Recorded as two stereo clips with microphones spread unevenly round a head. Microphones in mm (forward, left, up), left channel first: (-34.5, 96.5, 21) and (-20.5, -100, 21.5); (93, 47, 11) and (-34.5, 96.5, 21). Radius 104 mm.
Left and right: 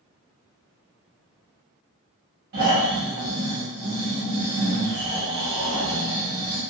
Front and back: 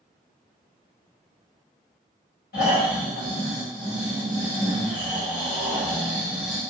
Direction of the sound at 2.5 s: 40° right.